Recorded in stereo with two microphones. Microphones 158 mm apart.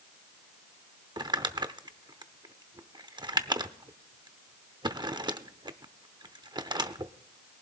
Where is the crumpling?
25° right (ahead or behind), 0.7 m.